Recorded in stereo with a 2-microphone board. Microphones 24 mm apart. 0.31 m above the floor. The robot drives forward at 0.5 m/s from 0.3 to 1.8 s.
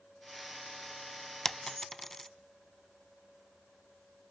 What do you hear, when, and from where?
1.4 s a dropped coin: 20° left (ahead or behind), 0.6 m; by 2.3 s 15° left (ahead or behind), 0.7 m